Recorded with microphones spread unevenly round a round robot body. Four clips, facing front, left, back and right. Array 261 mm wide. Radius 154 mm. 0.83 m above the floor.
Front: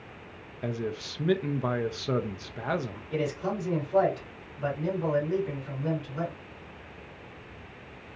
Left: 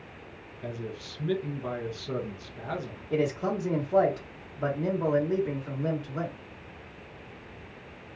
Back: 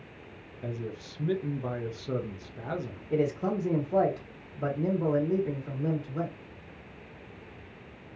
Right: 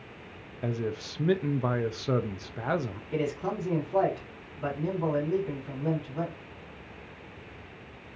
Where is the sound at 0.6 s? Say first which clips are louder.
Right 5 dB, front 5 dB; 50° right, 0.6 m.